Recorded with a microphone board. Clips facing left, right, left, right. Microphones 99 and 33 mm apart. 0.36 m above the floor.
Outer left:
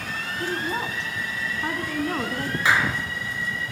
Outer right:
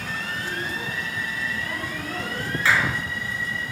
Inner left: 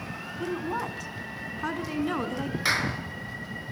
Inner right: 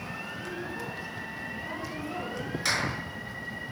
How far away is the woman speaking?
About 3 m.